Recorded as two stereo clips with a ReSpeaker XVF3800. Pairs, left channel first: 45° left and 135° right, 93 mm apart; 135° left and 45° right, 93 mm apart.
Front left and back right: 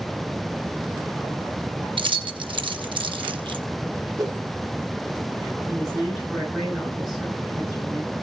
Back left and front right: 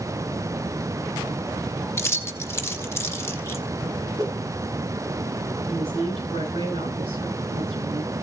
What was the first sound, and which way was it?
Keys jangling, 165° right.